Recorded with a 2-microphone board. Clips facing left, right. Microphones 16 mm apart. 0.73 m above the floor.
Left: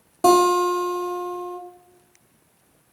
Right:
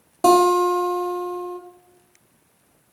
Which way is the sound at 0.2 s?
10° right (ahead or behind).